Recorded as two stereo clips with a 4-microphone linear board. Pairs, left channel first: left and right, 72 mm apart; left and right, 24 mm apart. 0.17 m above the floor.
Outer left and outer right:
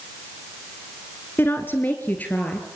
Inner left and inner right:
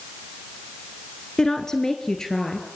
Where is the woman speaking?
30° left (ahead or behind), 1.8 m; by 2.7 s 20° left (ahead or behind), 3 m.